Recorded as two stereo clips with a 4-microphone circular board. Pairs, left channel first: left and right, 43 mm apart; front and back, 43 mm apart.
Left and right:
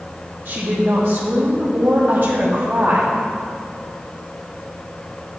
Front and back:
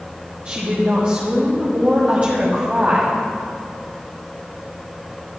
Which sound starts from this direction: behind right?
A woman speaking, at 0.5 s.